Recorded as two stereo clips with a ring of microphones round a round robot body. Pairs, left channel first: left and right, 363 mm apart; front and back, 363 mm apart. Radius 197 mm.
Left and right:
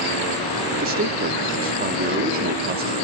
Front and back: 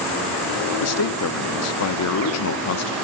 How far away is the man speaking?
About 0.7 m.